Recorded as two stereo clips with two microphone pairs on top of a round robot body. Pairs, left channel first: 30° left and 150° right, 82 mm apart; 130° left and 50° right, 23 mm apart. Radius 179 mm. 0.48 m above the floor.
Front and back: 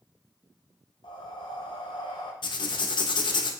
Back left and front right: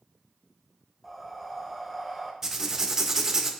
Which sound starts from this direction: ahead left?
Breathing, at 1.0 s.